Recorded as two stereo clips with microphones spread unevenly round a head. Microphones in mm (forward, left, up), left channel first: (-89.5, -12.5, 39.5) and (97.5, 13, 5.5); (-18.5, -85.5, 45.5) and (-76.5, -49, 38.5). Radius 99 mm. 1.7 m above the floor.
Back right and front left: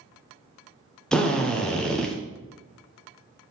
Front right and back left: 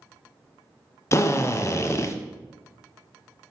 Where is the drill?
85° right, 0.7 m.